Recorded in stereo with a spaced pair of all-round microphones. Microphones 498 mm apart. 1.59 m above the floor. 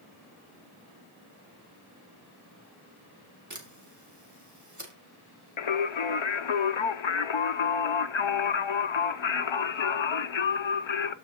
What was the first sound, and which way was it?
A camera shutter, 35° right (ahead or behind).